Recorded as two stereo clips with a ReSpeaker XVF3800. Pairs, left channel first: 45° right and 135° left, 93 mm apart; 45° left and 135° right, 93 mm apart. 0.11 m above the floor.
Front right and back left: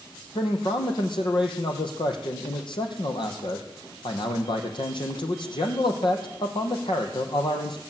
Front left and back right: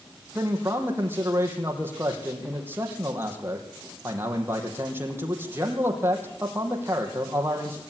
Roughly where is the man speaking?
Right.